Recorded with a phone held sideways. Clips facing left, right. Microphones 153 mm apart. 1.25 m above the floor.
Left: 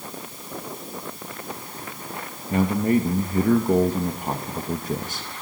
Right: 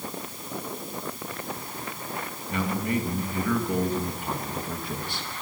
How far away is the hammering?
I don't hear hammering.